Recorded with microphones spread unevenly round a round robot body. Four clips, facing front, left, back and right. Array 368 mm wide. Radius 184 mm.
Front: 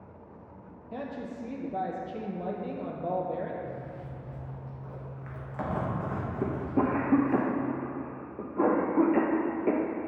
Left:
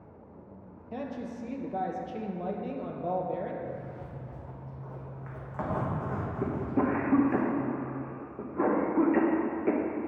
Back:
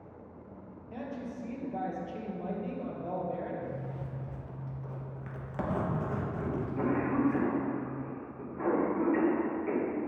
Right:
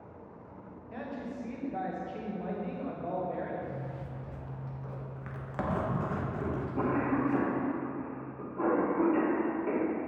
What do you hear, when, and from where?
0.9 s a woman speaking: 55° left, 0.6 m
3.6 s a zipper: 150° right, 0.9 m
6.4 s a cough: 35° left, 0.6 m